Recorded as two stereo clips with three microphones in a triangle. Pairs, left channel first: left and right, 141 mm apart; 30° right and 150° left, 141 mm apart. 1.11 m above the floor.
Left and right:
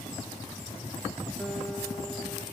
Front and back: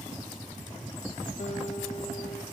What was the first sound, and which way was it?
A guitar, 5° left.